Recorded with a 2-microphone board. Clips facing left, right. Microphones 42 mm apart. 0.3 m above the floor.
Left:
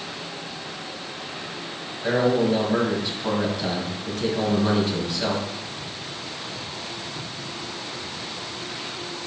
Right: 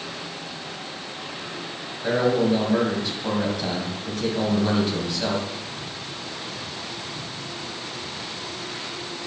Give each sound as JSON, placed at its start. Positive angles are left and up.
{"t": 2.0, "sound": "a man speaking", "side_deg": 5, "distance_m": 2.5}